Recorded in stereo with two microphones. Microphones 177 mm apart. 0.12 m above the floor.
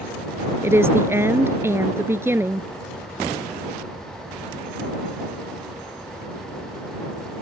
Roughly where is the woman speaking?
Centre.